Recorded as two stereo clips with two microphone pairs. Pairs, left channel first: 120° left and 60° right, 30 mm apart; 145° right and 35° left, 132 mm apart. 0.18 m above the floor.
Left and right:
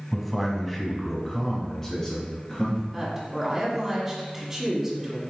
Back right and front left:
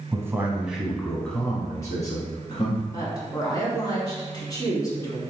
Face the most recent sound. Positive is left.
turn(degrees=-130)